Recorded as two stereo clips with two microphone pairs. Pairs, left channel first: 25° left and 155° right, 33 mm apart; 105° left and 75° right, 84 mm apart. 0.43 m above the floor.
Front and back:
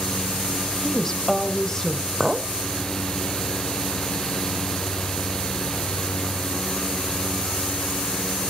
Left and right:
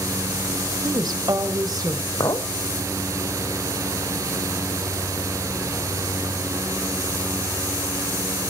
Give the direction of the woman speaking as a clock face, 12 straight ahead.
2 o'clock.